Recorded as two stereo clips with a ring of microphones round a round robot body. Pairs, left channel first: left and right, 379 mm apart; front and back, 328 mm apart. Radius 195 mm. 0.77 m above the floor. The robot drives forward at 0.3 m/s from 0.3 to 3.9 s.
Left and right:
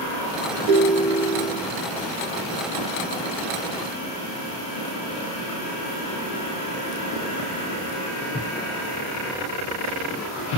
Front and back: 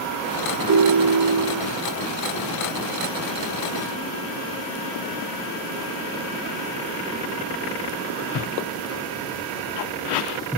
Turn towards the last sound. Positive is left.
turn(degrees=-50)